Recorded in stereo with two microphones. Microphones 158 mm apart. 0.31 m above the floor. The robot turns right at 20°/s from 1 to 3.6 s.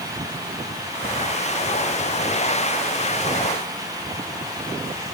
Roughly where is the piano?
No piano in this recording.